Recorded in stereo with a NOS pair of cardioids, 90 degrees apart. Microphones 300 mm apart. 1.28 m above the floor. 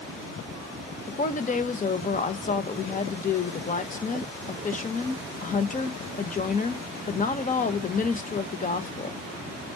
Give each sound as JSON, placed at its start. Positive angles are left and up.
{"t": 1.1, "sound": "a woman speaking", "azimuth_deg": 25, "distance_m": 1.2}